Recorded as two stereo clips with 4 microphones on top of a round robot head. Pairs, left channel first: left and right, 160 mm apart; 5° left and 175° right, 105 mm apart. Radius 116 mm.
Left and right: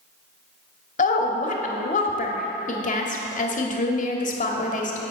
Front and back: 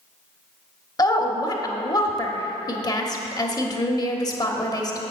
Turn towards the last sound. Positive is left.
turn(degrees=55)